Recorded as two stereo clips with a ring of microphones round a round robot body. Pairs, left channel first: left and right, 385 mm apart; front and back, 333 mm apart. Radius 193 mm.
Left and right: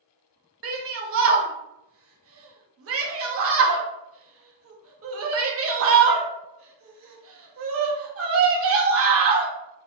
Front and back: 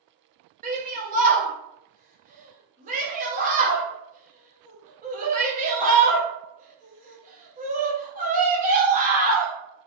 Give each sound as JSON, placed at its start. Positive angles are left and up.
{"t": 0.6, "sound": "a shout", "azimuth_deg": -125, "distance_m": 0.7}